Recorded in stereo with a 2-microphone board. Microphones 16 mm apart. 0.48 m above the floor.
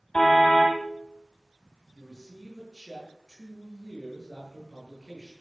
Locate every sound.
0.1 s a car horn: 60° left (ahead or behind), 6.5 m
1.9 s a man speaking: centre (ahead or behind), 9.5 m